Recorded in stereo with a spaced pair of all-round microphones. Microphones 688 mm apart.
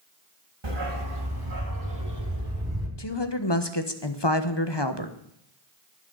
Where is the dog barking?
35° right (ahead or behind), 2 m; by 2.9 s 20° right (ahead or behind), 3 m.